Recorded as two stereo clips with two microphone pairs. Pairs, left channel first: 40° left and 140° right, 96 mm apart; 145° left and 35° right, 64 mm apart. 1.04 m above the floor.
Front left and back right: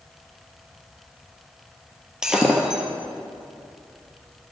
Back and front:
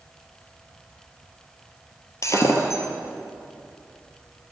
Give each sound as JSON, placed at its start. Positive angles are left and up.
{"t": 2.2, "sound": "breaking glass", "azimuth_deg": 140, "distance_m": 1.5}